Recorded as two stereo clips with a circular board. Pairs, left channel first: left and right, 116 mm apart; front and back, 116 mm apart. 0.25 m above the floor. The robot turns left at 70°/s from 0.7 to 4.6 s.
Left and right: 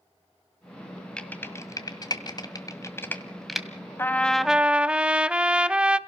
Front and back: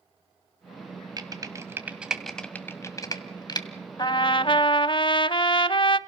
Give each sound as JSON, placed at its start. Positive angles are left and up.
{"t": 1.2, "sound": "typing on a keyboard", "azimuth_deg": 165, "distance_m": 1.7}
{"t": 4.0, "sound": "a trumpet", "azimuth_deg": 30, "distance_m": 0.5}